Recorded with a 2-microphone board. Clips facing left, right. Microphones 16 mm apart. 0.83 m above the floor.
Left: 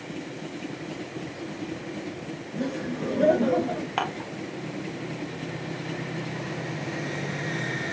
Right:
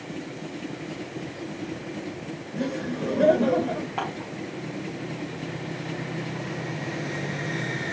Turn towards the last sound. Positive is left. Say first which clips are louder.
# left 2 dB
turn(degrees=80)